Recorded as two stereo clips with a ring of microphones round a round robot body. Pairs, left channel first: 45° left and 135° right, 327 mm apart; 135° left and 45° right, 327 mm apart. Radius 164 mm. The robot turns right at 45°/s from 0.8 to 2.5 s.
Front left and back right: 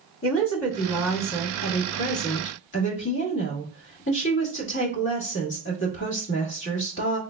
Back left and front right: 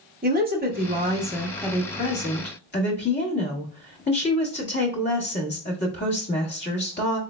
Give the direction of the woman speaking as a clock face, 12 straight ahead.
12 o'clock.